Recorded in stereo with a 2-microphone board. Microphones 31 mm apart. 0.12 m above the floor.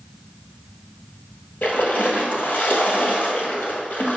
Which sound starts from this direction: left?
A splash, at 1.6 s.